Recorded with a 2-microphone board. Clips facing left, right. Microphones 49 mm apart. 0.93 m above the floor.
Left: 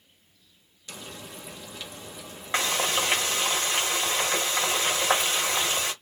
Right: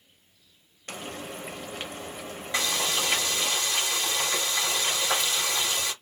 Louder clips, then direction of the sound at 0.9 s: Right 5 dB; 45° right (ahead or behind).